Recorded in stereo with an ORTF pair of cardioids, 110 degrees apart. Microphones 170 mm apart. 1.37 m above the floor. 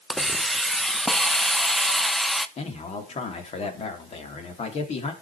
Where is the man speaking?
40° left, 3 m.